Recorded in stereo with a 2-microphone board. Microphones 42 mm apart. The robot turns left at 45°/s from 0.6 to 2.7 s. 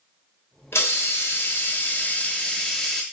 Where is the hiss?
100° left, 0.7 m; by 3.0 s 10° left, 0.7 m.